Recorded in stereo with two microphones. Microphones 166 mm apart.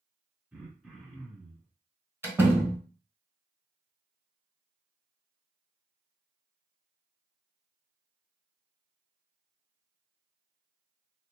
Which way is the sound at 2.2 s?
15° right (ahead or behind).